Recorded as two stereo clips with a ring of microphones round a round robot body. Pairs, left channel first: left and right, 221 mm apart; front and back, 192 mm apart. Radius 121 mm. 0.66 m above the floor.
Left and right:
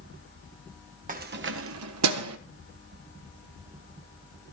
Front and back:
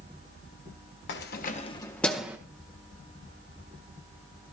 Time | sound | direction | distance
1.1 | keys jangling | 35° right | 1.3 m